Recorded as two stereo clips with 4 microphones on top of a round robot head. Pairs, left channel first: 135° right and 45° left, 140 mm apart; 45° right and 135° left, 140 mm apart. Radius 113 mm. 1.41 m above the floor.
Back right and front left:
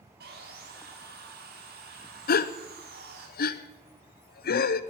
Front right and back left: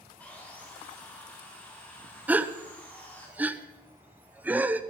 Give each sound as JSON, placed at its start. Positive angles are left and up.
{"t": 0.2, "sound": "sawing", "azimuth_deg": 35, "distance_m": 1.9}
{"t": 2.3, "sound": "a gasp", "azimuth_deg": -145, "distance_m": 0.6}